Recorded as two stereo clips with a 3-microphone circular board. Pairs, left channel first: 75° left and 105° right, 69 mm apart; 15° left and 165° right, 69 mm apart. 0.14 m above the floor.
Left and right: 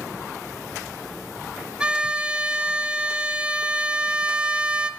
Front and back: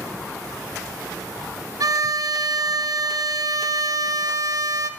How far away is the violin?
About 0.5 m.